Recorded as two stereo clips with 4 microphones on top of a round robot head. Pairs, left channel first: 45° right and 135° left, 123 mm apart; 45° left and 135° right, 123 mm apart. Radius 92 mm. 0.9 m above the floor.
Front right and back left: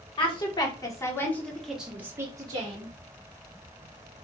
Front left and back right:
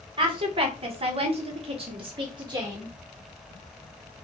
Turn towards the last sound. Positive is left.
turn(degrees=170)